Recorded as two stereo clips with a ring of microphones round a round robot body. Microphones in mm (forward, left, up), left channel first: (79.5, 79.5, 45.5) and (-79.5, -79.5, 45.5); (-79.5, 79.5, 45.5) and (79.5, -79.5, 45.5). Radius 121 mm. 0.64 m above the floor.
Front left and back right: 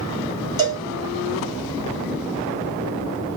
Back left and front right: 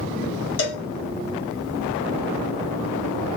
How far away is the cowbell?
About 1.6 m.